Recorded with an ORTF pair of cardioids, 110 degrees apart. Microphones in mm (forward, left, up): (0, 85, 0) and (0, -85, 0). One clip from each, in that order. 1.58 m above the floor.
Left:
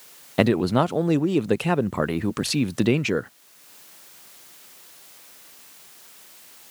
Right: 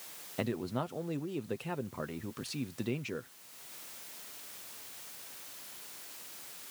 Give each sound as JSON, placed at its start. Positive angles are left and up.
{"t": 0.4, "sound": "a man speaking", "azimuth_deg": 70}